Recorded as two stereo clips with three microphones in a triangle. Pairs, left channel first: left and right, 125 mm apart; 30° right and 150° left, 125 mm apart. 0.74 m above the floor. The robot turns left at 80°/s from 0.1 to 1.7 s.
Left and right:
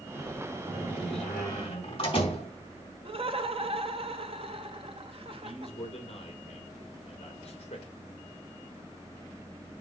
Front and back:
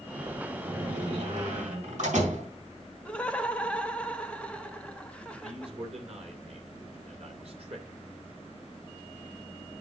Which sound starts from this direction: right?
Laughter, at 3.0 s.